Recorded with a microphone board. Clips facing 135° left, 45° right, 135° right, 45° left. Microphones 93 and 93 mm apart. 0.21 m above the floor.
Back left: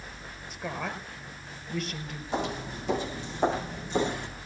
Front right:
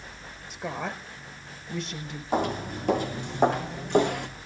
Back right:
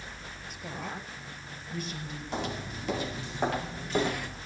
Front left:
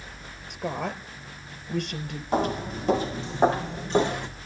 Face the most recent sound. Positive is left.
turn(degrees=-20)